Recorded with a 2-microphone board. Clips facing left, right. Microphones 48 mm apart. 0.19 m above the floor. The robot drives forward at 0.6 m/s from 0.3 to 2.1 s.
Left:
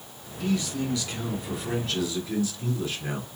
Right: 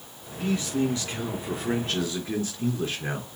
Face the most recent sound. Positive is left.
turn(degrees=-35)  # may be behind; listen again after turning